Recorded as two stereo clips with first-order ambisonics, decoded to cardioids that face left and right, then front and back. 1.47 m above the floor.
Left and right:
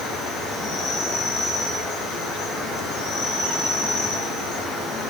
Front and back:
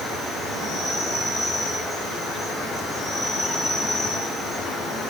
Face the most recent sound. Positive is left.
turn(degrees=90)